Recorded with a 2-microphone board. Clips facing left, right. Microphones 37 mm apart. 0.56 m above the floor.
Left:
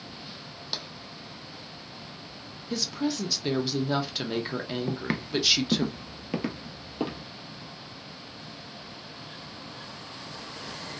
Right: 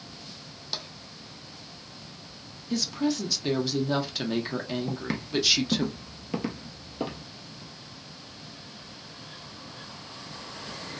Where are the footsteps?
15° left (ahead or behind), 0.5 m; by 7.2 s 10° left (ahead or behind), 1.2 m.